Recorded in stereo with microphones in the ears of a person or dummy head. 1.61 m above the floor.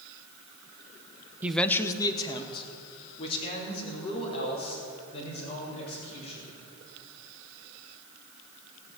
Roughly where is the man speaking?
Centre.